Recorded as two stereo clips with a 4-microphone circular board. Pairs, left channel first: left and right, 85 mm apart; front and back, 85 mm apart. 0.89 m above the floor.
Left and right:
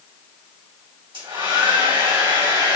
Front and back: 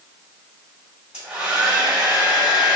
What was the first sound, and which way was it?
A hair dryer, 105° right.